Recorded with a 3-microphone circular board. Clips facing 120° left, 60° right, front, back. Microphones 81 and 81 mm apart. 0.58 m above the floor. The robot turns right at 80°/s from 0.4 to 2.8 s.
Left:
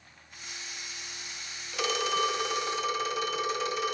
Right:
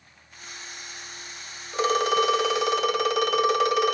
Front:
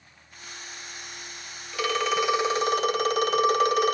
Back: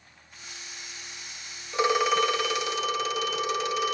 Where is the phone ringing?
120° right, 1.4 m; by 3.9 s 35° right, 1.4 m.